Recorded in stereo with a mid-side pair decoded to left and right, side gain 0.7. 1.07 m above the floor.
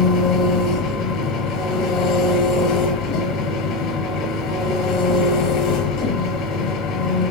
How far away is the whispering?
No whispering in this recording.